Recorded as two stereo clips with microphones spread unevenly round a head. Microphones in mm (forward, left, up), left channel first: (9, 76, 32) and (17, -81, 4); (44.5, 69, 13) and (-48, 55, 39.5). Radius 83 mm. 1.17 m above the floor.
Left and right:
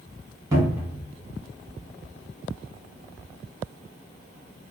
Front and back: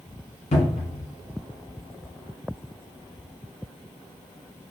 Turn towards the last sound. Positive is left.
turn(degrees=-15)